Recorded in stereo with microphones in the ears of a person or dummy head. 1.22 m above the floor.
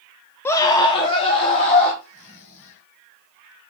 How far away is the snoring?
About 4.5 m.